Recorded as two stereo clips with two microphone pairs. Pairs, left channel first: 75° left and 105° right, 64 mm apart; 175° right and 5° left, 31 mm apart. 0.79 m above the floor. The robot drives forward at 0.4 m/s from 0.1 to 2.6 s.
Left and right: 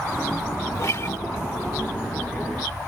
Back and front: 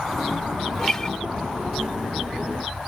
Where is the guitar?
110° left; by 1.2 s 125° left.